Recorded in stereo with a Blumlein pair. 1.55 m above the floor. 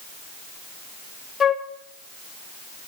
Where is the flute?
15° left, 0.9 m.